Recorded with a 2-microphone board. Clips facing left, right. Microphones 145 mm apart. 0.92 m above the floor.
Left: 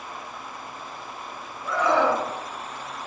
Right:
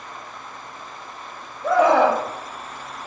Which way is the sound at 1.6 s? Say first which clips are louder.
Right 6 dB; 85° right.